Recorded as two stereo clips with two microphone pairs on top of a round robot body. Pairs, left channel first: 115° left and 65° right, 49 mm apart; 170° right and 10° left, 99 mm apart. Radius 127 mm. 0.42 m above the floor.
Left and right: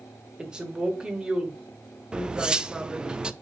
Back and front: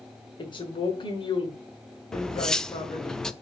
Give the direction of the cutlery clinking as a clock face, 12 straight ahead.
3 o'clock.